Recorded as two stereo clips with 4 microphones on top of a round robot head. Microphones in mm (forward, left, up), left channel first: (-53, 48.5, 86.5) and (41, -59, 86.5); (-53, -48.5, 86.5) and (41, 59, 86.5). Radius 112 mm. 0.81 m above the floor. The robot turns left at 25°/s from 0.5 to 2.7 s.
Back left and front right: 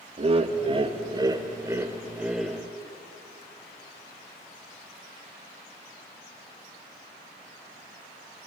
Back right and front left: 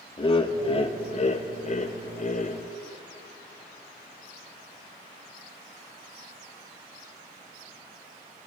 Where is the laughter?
85° right, 1.3 m; by 2.6 s 140° right, 1.3 m.